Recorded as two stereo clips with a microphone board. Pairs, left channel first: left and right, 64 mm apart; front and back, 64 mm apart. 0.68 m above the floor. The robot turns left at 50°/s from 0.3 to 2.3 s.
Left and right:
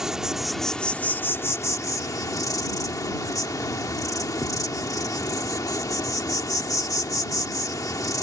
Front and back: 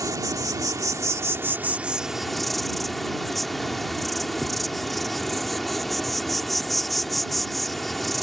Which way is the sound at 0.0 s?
170° right.